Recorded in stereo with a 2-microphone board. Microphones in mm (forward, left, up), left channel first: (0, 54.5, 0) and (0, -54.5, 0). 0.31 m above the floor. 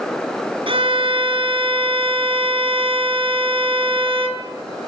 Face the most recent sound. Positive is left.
turn(degrees=-55)  # may be behind; listen again after turning